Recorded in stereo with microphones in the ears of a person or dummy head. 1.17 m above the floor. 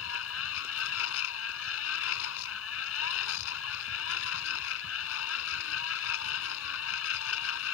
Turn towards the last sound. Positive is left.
turn(degrees=80)